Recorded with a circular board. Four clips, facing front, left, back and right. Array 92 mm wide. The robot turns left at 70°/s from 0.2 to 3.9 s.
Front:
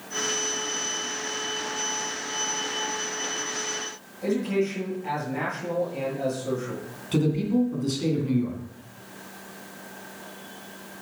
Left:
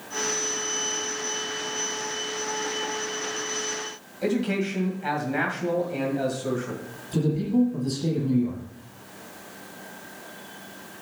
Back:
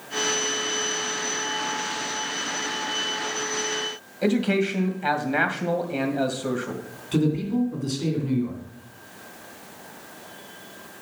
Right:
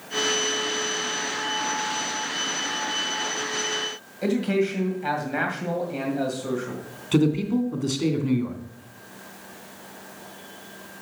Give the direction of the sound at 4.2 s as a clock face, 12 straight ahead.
6 o'clock.